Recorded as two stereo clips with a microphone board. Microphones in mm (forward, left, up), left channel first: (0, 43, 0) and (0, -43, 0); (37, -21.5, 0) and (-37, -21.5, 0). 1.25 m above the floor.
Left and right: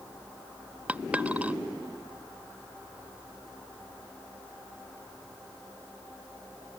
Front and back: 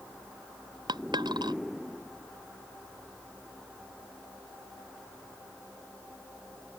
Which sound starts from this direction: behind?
A dropped coin, at 0.9 s.